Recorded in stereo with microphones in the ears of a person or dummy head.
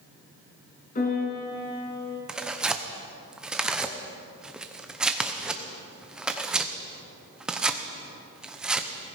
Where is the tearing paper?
5° right (ahead or behind), 0.8 m.